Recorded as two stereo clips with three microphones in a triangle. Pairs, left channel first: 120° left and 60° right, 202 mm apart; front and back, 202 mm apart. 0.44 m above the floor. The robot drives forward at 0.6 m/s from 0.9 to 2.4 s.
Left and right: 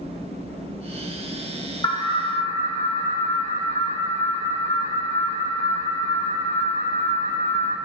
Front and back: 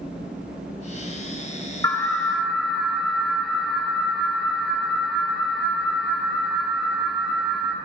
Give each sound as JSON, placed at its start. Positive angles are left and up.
{"t": 1.8, "sound": "an alarm", "azimuth_deg": 65, "distance_m": 1.1}